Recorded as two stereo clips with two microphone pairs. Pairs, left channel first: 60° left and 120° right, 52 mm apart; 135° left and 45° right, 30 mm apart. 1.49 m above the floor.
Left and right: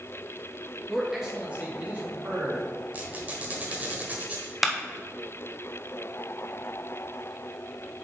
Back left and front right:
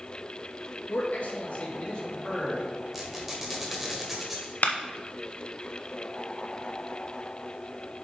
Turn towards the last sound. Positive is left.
turn(degrees=160)